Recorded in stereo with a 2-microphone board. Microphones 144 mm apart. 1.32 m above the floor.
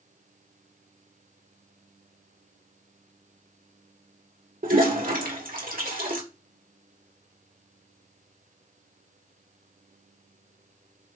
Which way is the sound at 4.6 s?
75° right (ahead or behind).